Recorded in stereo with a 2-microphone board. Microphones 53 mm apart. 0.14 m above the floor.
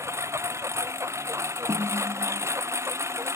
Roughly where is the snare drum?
Right.